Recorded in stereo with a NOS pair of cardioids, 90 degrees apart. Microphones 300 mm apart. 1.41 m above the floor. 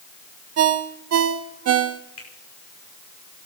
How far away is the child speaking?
I don't hear a child speaking.